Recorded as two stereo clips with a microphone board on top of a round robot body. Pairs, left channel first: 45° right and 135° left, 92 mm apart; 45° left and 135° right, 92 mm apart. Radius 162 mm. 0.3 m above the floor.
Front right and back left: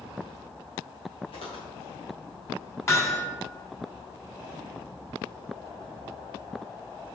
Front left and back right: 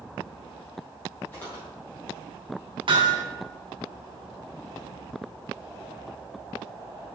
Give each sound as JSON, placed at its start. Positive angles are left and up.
{"t": 1.3, "sound": "footsteps", "azimuth_deg": -25, "distance_m": 5.0}
{"t": 2.9, "sound": "hammering", "azimuth_deg": -105, "distance_m": 2.5}